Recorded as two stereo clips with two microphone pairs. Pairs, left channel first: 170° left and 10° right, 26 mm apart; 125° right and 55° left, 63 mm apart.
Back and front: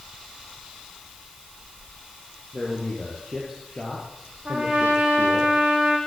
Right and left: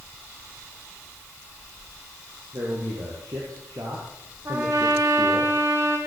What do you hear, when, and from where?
2.5 s a man speaking: 70° left, 5.5 m
4.5 s a trumpet: 20° left, 6 m